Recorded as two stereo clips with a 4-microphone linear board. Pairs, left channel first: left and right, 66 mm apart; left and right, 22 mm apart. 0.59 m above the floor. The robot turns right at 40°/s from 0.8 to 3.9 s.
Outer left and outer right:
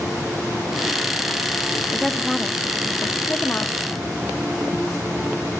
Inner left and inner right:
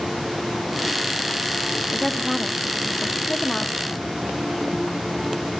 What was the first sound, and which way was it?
A woman speaking, centre (ahead or behind).